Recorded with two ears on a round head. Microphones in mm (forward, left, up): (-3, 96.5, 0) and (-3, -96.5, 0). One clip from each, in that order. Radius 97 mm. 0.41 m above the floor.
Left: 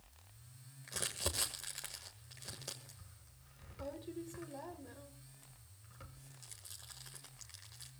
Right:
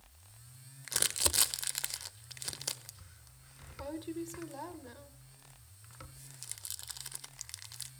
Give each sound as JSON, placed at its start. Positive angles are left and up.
{"t": 0.9, "sound": "crumpling", "side_deg": -50, "distance_m": 1.4}